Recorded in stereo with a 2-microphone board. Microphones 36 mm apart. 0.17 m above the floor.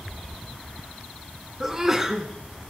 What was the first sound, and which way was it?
A sneeze, 15° right (ahead or behind).